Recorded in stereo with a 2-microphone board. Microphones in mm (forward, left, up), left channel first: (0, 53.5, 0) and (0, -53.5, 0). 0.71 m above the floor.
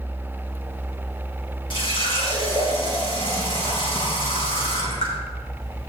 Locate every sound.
1.7 s a running tap: 50° left (ahead or behind), 4 m